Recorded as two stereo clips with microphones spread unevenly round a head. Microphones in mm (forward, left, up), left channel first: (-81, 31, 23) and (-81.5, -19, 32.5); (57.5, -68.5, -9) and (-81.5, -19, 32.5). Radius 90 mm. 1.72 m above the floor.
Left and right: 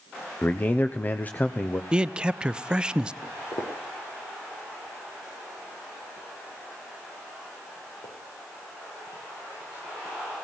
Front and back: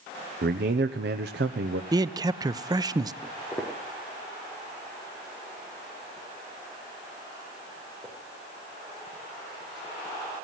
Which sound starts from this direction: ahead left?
Footsteps, at 3.2 s.